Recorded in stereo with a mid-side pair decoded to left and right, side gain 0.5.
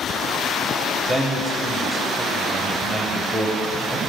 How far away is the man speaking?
About 1.0 m.